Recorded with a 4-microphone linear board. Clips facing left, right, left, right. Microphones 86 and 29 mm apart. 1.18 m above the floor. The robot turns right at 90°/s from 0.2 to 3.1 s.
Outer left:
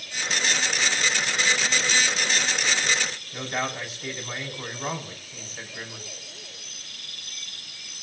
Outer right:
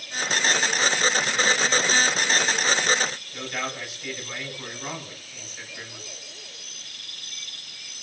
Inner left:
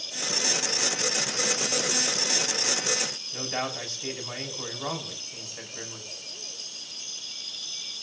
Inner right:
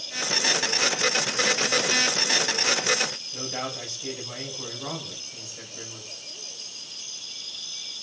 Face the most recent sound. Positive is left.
turn(degrees=35)  # may be behind; listen again after turning